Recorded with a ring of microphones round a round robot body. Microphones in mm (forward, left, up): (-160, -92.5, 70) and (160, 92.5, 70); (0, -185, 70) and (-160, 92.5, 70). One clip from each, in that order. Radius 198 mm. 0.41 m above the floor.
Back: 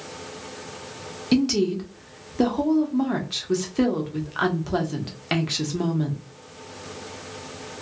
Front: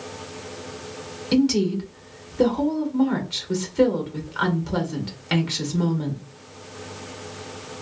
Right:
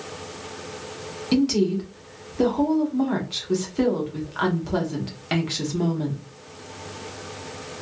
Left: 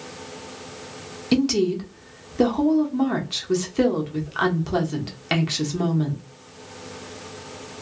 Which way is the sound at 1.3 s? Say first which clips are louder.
Front 1 dB, left 1 dB; 145° left.